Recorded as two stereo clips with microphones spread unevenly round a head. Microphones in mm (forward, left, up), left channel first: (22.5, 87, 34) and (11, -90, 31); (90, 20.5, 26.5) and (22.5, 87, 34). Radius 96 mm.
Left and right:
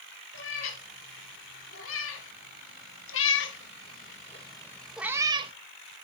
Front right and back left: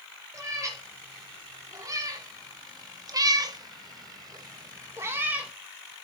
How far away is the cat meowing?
About 3 m.